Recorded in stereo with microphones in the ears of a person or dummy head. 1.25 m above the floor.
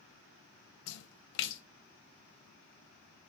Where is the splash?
65° left (ahead or behind), 0.5 m.